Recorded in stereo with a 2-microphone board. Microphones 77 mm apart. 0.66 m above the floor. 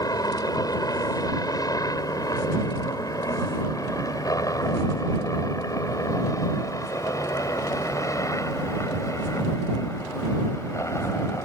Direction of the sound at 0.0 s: 55° left (ahead or behind).